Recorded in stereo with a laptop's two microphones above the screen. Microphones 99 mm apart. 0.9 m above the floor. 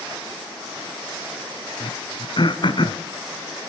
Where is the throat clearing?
55° left (ahead or behind), 1.7 m.